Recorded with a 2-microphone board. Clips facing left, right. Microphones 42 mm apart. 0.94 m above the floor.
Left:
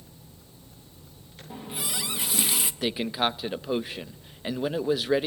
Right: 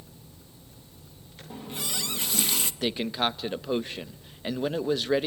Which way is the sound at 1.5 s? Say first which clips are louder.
Left 1 dB; 10° left (ahead or behind).